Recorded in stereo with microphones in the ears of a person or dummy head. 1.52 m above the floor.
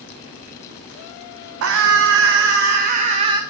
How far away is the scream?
About 1.1 m.